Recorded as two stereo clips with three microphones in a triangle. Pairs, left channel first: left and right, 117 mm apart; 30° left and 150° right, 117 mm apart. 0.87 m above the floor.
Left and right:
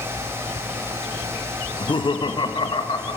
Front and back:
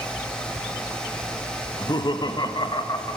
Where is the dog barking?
I don't hear a dog barking.